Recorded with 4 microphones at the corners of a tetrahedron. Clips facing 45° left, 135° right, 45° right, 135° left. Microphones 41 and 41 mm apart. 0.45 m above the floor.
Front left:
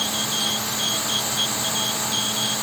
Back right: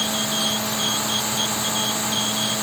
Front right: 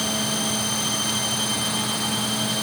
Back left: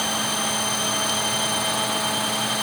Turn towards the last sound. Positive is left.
No sound to turn to.